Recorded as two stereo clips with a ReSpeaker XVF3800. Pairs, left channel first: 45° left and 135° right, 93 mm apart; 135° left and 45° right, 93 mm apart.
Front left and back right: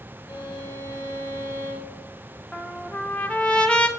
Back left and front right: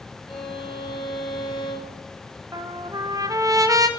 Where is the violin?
100° left, 1.2 m.